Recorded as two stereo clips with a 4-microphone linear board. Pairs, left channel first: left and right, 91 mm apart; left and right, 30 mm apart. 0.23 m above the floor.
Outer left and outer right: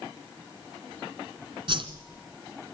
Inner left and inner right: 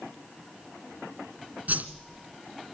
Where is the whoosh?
60° right (ahead or behind), 1.4 m.